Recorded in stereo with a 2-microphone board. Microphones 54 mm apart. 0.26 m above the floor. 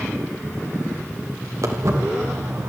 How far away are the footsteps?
About 5 m.